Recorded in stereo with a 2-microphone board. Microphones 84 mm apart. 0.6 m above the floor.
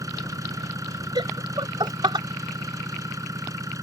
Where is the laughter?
70° right (ahead or behind).